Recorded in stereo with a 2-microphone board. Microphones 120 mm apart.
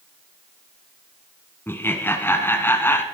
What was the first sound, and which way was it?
Laughter, 20° left (ahead or behind).